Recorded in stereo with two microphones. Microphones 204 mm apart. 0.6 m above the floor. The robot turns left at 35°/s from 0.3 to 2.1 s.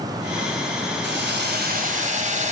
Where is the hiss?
100° right, 2.5 m; by 2.5 s 140° right, 2.5 m.